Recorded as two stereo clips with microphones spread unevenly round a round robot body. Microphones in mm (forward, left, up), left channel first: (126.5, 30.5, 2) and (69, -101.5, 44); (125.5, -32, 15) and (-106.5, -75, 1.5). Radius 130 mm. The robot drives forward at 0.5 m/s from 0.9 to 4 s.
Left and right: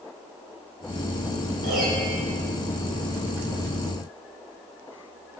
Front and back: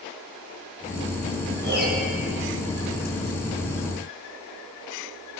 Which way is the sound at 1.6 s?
125° right.